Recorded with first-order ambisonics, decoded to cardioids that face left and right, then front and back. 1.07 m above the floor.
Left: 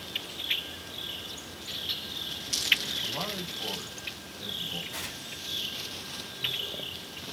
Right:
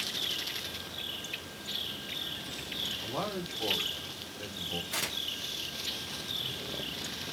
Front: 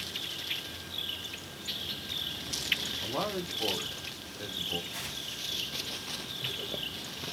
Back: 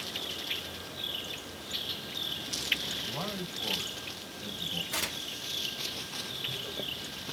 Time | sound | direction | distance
3.0 | a man speaking | 35° right | 2.5 m
4.9 | tearing paper | 140° right | 1.8 m